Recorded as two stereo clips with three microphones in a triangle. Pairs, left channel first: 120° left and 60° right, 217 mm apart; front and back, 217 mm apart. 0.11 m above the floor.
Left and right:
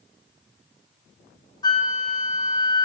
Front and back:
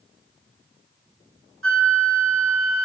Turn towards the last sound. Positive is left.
turn(degrees=-170)